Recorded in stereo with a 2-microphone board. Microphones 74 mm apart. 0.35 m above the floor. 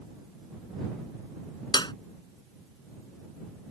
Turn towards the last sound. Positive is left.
turn(degrees=75)  # may be behind; listen again after turning